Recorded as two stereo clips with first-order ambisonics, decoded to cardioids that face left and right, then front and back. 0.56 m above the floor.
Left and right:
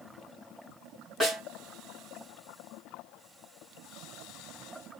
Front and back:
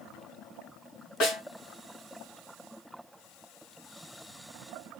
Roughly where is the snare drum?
Ahead left.